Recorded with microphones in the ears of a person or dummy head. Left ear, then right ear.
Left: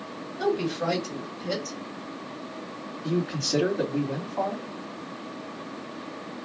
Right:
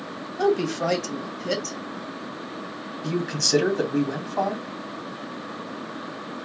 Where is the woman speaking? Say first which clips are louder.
Right 4 dB; 65° right (ahead or behind), 1.4 m.